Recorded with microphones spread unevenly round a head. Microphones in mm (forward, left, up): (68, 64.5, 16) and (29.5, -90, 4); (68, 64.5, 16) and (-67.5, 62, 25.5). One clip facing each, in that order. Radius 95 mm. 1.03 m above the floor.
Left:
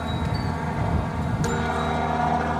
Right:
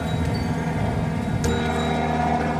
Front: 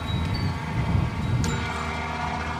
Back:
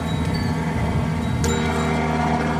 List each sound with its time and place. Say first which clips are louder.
0.0 s a helicopter: right 3 dB, back 6 dB; 160° right; by 2.6 s 175° right